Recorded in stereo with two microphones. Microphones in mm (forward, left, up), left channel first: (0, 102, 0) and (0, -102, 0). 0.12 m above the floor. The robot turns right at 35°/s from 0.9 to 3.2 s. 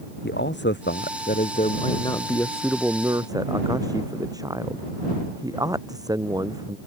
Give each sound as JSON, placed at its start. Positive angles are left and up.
{"t": 0.2, "sound": "a man speaking", "azimuth_deg": 120}